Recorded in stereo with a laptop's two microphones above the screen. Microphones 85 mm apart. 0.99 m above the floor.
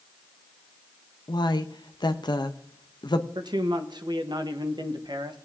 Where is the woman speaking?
60° left (ahead or behind), 0.7 m.